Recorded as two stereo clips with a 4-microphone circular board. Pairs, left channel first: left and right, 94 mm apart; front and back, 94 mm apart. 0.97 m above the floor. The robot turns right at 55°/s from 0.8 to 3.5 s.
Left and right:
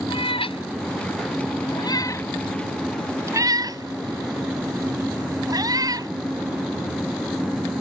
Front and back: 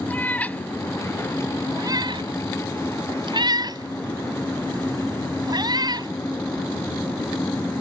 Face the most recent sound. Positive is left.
turn(degrees=-140)